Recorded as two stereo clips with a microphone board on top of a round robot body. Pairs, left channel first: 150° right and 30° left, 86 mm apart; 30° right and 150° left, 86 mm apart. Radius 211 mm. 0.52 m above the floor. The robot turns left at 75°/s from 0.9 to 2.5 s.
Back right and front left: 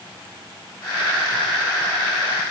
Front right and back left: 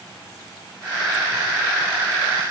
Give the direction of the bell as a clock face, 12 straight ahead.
I don't hear a bell.